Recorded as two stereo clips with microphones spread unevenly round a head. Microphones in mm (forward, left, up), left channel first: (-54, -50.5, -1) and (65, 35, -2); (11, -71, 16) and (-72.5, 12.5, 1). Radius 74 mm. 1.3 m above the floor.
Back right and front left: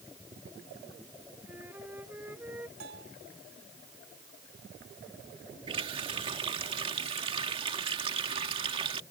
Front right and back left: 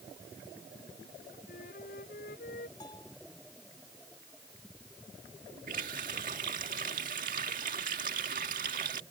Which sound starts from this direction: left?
A running tap, at 5.7 s.